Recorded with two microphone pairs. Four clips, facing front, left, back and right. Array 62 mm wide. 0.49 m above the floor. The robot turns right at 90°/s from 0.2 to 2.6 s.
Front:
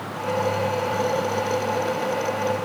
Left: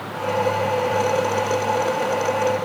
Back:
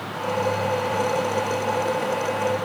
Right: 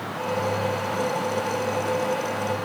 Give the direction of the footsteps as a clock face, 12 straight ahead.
No footsteps in this recording.